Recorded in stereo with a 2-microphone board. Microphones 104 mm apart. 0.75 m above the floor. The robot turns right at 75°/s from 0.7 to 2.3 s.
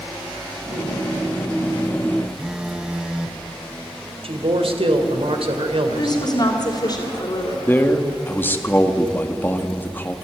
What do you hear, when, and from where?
2.4 s a phone buzzing: 10° right (ahead or behind), 0.9 m
4.2 s a man speaking: 65° right (ahead or behind), 2.5 m
5.9 s a woman speaking: 50° left (ahead or behind), 2.5 m
7.7 s a man speaking: 20° left (ahead or behind), 1.5 m